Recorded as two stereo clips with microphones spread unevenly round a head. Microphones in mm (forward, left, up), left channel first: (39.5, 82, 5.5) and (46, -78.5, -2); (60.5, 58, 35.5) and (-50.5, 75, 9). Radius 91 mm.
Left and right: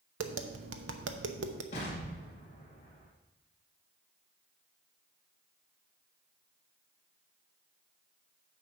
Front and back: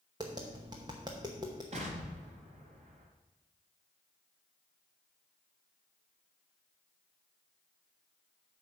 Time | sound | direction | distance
0.2 | tapping | 120° right | 0.8 m
1.7 | an explosion | 145° left | 3 m